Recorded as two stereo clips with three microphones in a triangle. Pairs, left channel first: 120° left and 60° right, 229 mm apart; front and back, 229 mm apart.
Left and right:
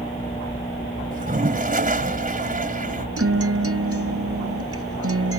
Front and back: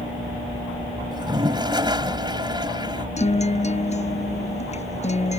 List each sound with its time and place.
1.1 s a toilet flushing: 110° right
3.2 s a guitar: 60° right